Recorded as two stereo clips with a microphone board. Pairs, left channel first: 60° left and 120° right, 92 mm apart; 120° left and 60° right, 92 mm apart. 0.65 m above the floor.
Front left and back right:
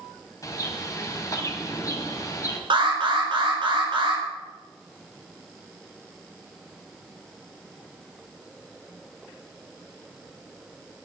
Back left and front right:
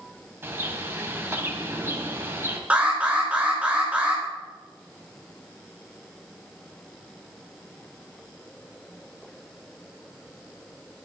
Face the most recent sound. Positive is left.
turn(degrees=-135)